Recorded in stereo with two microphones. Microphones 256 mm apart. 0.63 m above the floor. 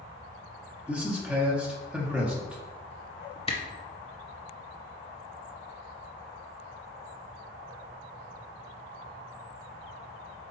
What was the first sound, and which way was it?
A man speaking, 5° right (ahead or behind).